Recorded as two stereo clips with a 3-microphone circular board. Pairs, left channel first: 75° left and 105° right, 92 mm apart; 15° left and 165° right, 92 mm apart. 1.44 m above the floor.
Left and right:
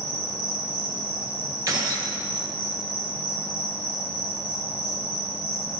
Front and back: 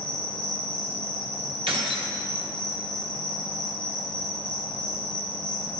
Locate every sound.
0.0 s an insect: 95° left, 2.5 m
1.7 s keys jangling: 150° right, 1.1 m